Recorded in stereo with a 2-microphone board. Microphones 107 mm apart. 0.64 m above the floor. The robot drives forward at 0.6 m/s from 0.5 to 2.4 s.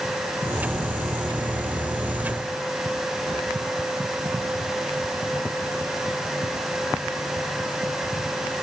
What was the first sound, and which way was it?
Only background noise.